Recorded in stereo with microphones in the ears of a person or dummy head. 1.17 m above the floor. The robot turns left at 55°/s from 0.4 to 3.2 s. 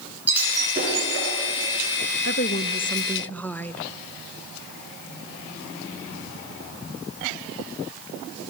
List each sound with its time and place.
0.3 s breaking glass: 10° right (ahead or behind), 8.5 m; by 1.3 s 60° right (ahead or behind), 8.5 m
2.2 s a woman speaking: 65° left, 0.8 m; by 3.8 s 10° left, 0.8 m